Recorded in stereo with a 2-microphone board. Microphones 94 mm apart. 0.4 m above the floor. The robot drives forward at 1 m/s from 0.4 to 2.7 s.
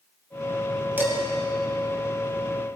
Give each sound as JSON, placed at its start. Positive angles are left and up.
{"t": 1.0, "sound": "dishes clattering", "side_deg": -20, "distance_m": 2.5}